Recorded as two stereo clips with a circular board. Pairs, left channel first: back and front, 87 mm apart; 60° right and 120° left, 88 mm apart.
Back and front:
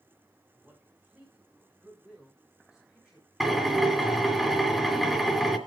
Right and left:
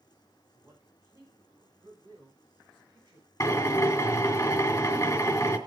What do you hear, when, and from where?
0.6 s a man speaking: 65° left, 6 m; by 4.4 s 85° left, 11.5 m
3.4 s a drill: 90° right, 2 m